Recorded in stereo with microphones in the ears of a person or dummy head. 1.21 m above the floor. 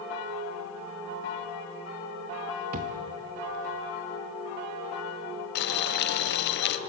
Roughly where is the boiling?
Left.